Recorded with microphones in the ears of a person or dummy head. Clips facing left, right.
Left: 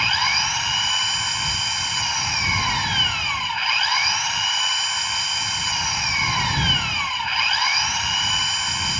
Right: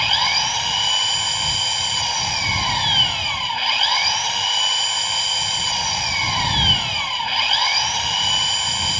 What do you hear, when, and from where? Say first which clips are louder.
0.0 s an engine running: right 2 dB; 30° right (ahead or behind)